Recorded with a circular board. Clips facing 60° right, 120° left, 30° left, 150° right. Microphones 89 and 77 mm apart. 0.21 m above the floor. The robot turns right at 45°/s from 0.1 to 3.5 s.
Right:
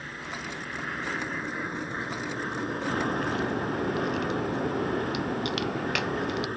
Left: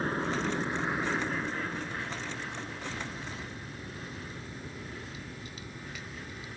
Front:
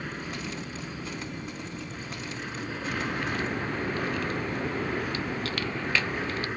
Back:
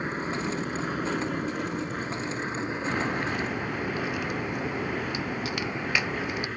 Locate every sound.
0.0 s an aircraft: 155° left; by 6.6 s 50° right
2.9 s a crack: 100° right; by 6.5 s 70° right